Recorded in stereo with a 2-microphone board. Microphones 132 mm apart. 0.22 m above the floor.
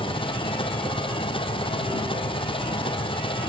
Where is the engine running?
40° left (ahead or behind).